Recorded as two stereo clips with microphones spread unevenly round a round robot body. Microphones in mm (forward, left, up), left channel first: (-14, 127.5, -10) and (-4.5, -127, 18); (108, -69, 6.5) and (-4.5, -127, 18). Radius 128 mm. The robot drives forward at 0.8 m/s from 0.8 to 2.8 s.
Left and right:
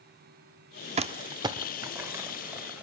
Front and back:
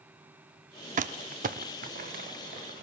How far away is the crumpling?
About 0.8 m.